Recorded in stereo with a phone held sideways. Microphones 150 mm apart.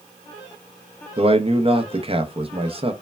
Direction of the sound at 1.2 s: 35° right (ahead or behind).